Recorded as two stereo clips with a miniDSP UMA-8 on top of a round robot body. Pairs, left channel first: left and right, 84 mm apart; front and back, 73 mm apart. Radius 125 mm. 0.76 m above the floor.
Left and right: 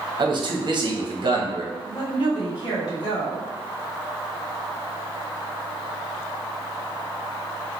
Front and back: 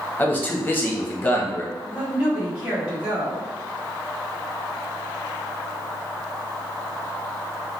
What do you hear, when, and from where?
0.2 s a man speaking: 65° right, 0.9 m
1.8 s a woman speaking: 105° left, 1.6 m